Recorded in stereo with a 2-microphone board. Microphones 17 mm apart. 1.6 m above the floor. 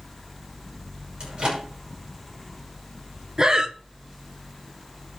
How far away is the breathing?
About 1.0 m.